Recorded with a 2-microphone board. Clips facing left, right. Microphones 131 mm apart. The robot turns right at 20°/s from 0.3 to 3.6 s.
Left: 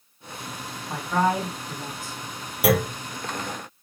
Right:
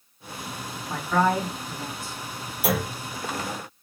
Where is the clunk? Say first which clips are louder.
Left 5 dB; 75° left (ahead or behind), 1.0 m.